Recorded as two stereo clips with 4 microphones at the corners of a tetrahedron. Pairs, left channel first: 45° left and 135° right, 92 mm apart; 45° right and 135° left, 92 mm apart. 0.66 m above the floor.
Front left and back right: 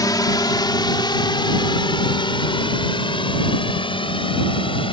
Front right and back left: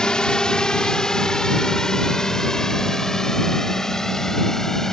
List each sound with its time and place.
0.0 s a drone: 30° left; by 4.9 s 40° left